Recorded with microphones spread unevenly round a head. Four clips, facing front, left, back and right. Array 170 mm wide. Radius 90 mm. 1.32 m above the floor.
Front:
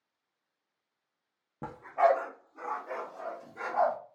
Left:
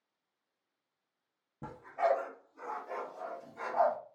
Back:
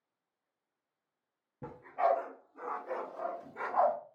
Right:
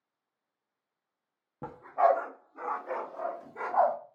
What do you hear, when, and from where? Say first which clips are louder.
1.6 s a dog barking: right 6 dB, front 5 dB; 15° right, 0.8 m; by 4.0 s 110° right, 1.3 m